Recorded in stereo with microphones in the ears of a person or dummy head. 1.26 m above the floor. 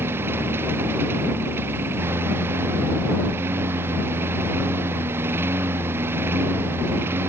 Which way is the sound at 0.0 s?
15° right (ahead or behind).